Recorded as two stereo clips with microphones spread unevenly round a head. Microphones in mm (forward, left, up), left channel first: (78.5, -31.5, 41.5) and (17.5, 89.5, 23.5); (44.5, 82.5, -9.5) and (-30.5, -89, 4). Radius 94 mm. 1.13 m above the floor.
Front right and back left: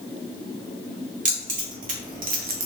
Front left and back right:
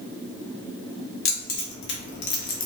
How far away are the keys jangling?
About 1.4 m.